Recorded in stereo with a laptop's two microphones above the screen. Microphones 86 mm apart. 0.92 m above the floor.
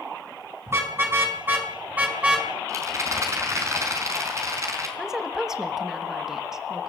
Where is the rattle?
35° right (ahead or behind), 4.5 m.